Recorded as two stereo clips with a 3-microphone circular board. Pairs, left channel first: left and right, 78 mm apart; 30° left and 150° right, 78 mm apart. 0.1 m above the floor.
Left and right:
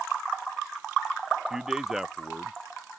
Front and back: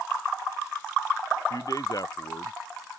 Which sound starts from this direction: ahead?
A man speaking, at 1.5 s.